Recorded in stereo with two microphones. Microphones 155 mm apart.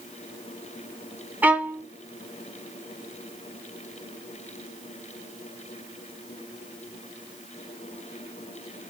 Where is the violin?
10° right (ahead or behind), 0.7 m.